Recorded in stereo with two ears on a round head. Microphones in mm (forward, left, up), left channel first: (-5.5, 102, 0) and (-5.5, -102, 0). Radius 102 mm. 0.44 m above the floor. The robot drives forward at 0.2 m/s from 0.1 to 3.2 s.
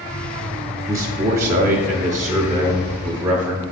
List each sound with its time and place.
0.9 s a man speaking: 15° right (ahead or behind), 0.8 m; by 3.6 s 10° right (ahead or behind), 1.1 m